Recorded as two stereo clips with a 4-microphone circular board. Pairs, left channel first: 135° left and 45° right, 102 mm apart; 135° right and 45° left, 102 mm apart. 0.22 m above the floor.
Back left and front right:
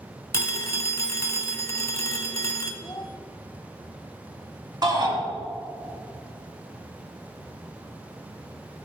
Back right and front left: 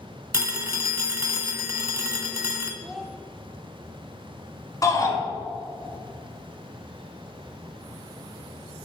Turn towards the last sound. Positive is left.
turn(degrees=-85)